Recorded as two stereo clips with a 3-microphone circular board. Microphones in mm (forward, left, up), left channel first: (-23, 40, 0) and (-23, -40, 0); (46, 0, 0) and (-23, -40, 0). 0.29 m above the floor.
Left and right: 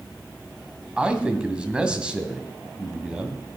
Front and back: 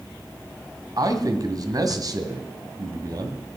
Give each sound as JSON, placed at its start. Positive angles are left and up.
{"t": 1.0, "sound": "a man speaking", "azimuth_deg": -165, "distance_m": 1.9}